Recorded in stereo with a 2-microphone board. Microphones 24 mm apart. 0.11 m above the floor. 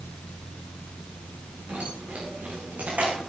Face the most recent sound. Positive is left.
turn(degrees=-75)  # may be behind; listen again after turning